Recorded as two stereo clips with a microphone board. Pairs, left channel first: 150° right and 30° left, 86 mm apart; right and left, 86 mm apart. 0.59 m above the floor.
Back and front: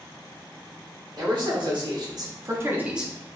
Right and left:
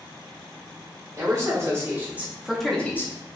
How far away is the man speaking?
About 1.4 m.